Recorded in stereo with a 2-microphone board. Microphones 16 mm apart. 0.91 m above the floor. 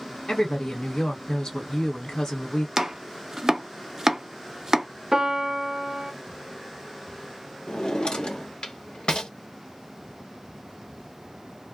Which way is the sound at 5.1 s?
40° right (ahead or behind).